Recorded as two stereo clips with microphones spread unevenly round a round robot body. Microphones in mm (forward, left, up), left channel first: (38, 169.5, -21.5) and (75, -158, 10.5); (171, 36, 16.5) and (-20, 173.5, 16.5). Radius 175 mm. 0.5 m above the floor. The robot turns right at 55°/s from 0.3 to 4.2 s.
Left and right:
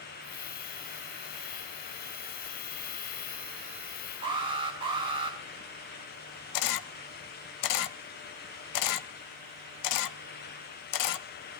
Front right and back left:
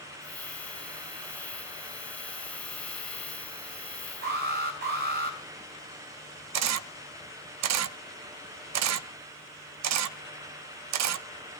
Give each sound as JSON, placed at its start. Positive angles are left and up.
{"t": 4.2, "sound": "an alarm", "azimuth_deg": -160, "distance_m": 3.5}
{"t": 6.5, "sound": "a camera shutter", "azimuth_deg": 135, "distance_m": 0.7}